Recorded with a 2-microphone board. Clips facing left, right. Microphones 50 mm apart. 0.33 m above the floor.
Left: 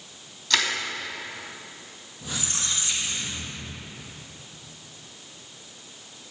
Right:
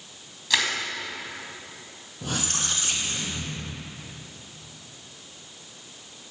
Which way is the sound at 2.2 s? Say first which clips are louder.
Right 3 dB; 60° right (ahead or behind).